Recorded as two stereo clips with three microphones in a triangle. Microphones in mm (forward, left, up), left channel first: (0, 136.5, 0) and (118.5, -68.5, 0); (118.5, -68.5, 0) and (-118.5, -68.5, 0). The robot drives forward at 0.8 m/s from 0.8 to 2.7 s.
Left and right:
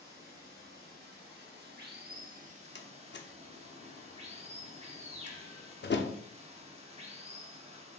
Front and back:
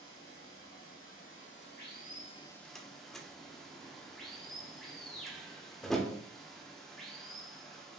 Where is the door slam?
90° left, 0.6 m.